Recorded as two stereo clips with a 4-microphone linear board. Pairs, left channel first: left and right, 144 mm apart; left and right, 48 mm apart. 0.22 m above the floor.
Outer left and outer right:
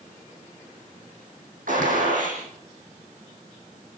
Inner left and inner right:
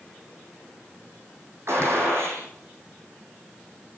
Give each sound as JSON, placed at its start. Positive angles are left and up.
{"t": 1.7, "sound": "a gunshot", "side_deg": -70, "distance_m": 8.0}